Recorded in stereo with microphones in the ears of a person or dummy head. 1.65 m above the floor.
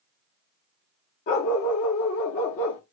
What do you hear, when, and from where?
1.3 s a dog barking: 50° left (ahead or behind), 1.5 m